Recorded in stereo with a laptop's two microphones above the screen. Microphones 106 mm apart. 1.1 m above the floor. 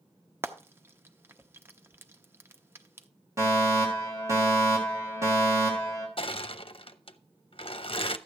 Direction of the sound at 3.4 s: 25° right (ahead or behind).